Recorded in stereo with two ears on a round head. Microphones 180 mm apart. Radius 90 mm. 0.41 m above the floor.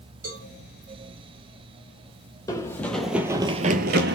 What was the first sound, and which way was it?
A cowbell, 40° right (ahead or behind).